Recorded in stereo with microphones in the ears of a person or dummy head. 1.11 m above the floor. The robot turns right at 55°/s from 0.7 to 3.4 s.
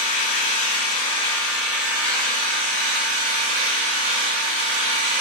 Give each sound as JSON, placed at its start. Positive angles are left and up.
{"t": 0.0, "sound": "an engine running", "azimuth_deg": 135, "distance_m": 1.5}